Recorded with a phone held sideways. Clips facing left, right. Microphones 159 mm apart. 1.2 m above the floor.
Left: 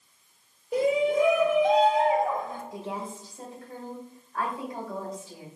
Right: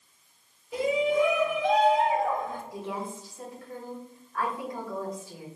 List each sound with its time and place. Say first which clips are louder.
0.7 s a shout: left 2 dB; 50° left (ahead or behind), 1.8 m; by 2.6 s 20° left (ahead or behind), 1.3 m
2.7 s a woman speaking: even; 25° left (ahead or behind), 1.9 m